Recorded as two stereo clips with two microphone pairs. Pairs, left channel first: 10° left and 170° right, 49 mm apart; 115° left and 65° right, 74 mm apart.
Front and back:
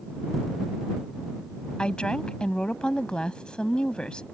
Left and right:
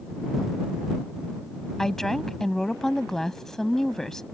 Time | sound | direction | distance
1.8 | a woman speaking | 35° left | ?